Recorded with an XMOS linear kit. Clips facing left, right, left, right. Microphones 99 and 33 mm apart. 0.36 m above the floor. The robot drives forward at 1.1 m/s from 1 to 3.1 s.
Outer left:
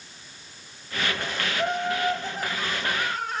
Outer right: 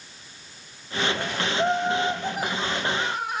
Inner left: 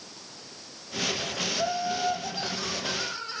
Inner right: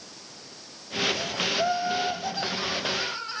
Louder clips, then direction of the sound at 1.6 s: Outer right 3 dB, inner right 3 dB; 25° right (ahead or behind).